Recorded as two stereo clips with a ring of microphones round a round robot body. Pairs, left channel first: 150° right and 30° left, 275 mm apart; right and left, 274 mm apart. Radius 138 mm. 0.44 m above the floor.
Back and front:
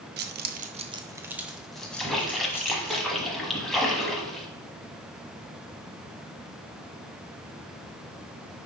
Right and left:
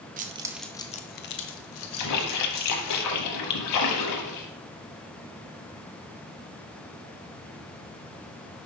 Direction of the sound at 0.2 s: 50° left.